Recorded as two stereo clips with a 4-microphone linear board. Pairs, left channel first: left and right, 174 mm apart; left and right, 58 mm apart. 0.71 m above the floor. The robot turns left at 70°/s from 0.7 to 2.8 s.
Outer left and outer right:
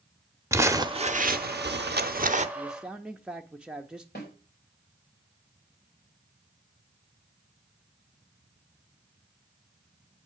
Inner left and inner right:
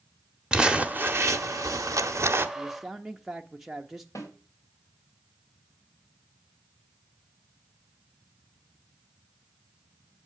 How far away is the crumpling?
About 0.8 m.